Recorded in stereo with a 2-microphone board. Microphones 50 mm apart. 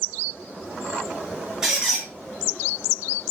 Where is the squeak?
10° right (ahead or behind), 1.3 m.